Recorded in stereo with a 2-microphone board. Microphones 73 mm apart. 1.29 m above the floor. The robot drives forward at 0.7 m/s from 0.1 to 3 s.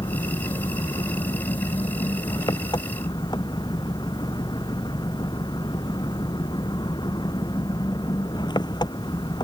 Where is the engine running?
85° left; by 9.4 s 80° left.